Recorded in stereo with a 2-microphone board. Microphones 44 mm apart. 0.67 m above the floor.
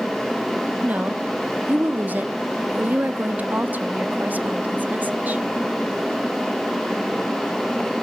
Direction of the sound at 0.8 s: 40° right (ahead or behind).